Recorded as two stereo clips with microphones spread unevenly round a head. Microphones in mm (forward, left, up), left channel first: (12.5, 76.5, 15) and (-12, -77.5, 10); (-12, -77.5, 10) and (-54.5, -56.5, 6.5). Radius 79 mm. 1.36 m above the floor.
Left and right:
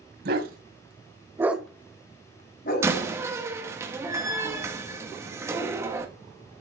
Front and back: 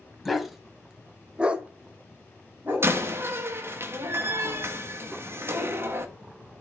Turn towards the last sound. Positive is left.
turn(degrees=-175)